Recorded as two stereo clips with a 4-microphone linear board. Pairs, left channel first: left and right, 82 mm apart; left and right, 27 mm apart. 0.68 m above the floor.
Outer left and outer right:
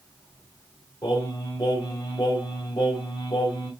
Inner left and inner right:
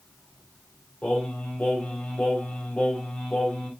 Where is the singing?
55° left (ahead or behind), 2.5 m.